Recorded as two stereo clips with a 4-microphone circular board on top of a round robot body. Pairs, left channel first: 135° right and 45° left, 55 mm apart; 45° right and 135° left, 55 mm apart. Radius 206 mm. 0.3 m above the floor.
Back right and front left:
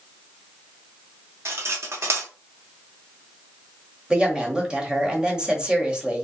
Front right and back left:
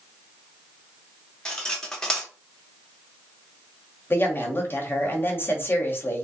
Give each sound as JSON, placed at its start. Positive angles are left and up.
{"t": 1.4, "sound": "cutlery clinking", "azimuth_deg": 30, "distance_m": 1.0}
{"t": 4.1, "sound": "a woman speaking", "azimuth_deg": -25, "distance_m": 1.2}